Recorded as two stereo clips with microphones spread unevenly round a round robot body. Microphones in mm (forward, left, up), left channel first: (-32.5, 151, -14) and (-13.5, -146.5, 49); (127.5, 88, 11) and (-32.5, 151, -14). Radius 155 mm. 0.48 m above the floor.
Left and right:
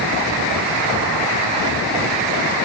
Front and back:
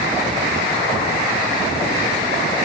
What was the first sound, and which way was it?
Only background noise.